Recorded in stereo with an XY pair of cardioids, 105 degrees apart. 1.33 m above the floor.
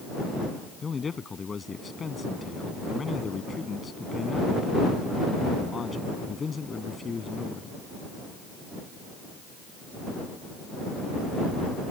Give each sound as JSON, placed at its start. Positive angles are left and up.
{"t": 0.8, "sound": "a man speaking", "azimuth_deg": 35}